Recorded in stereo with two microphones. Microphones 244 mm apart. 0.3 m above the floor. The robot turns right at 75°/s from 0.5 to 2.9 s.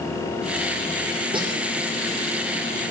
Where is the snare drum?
20° right (ahead or behind), 5 m; by 1.5 s 10° right (ahead or behind), 5 m.